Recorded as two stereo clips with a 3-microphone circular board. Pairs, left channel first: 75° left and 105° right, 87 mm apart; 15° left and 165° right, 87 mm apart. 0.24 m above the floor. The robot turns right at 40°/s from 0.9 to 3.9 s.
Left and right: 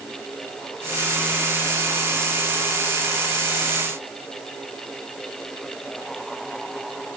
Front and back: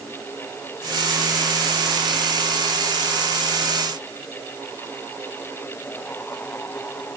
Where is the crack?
No crack in this recording.